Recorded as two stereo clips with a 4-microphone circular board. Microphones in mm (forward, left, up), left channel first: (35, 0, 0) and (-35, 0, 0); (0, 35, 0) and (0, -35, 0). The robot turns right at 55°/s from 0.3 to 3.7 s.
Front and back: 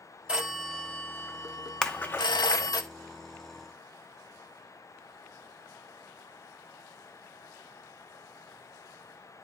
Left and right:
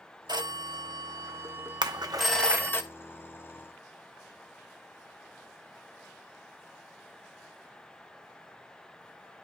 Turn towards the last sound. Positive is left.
turn(degrees=25)